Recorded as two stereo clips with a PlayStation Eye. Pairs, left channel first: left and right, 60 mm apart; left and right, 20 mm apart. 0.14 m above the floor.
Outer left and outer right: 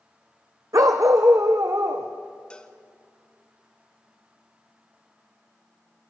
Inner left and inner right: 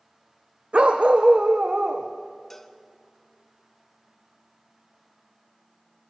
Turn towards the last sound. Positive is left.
turn(degrees=15)  # may be behind; listen again after turning